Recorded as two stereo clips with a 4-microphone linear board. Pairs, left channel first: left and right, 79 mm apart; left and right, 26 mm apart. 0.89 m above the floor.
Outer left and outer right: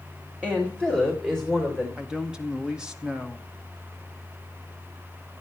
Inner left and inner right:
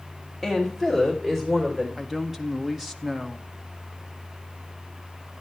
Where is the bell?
I don't hear a bell.